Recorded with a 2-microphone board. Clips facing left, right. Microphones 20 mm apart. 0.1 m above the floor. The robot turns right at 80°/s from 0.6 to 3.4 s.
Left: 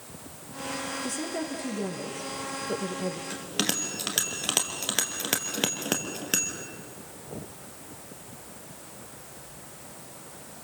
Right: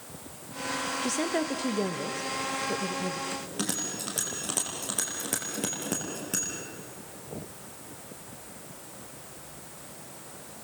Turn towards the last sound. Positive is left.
turn(degrees=60)  # may be behind; listen again after turning